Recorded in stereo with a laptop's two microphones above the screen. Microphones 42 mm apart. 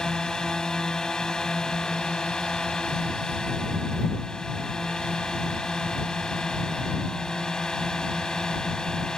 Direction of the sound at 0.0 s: 15° left (ahead or behind).